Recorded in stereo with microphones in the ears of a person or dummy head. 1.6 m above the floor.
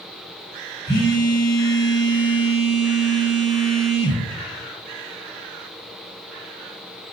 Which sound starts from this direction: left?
A phone buzzing, at 0.9 s.